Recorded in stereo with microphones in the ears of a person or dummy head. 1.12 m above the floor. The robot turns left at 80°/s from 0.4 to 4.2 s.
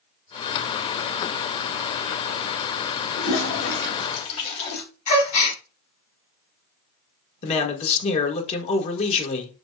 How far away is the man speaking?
About 1.1 m.